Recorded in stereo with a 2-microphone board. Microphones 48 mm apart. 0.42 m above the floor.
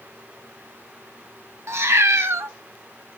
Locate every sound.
1.7 s a cat meowing: 75° right (ahead or behind), 1.2 m